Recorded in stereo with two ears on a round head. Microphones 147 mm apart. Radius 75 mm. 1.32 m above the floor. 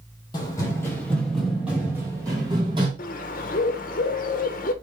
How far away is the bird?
About 0.6 m.